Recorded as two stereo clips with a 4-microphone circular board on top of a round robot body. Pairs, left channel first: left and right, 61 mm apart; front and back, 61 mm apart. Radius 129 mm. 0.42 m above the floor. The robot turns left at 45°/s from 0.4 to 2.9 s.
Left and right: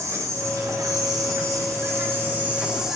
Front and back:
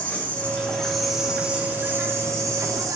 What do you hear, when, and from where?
0.0 s an insect: 65° right, 3 m; by 3.0 s 175° right, 3 m